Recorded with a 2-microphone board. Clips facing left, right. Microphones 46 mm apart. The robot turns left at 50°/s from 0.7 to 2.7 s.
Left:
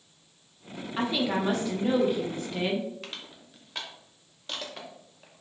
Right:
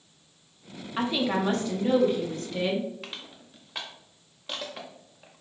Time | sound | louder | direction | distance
1.0 | a woman speaking | right 1 dB | 5° right (ahead or behind) | 0.8 m
3.0 | crushing | right 1 dB | 5° right (ahead or behind) | 0.7 m